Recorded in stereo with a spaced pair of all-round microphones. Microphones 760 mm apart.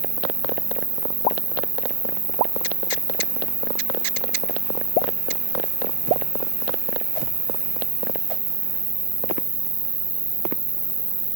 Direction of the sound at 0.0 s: 45° right (ahead or behind).